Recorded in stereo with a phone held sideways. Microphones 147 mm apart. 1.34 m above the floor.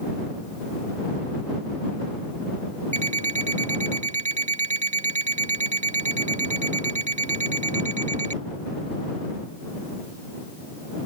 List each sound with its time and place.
2.9 s an alarm clock: 50° right (ahead or behind)